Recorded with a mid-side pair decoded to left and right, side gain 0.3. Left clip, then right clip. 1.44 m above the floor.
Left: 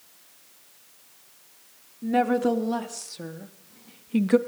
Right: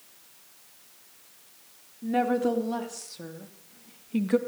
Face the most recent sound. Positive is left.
turn(degrees=45)